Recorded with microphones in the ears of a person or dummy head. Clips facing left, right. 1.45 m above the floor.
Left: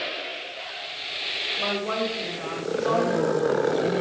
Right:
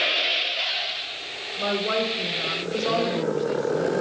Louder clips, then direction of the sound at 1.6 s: Right 2 dB; 40° right (ahead or behind).